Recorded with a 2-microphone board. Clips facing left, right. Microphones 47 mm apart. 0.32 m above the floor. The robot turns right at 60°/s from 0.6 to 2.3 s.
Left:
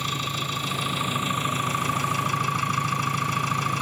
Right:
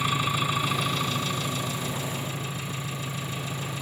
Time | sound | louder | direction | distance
0.0 | an engine running | right 3 dB | 15° right | 2.5 m